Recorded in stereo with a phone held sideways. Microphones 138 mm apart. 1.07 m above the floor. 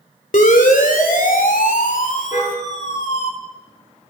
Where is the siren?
70° left (ahead or behind), 3.5 m; by 3.3 s 55° left (ahead or behind), 4.5 m.